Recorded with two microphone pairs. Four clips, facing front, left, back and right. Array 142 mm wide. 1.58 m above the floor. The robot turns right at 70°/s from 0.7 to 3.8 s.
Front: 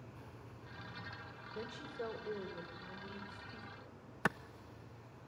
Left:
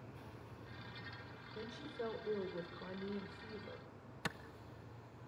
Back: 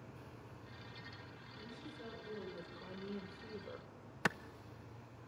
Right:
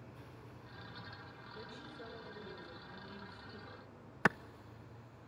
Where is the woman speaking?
10° left, 6.5 m; by 3.9 s 170° left, 6.5 m.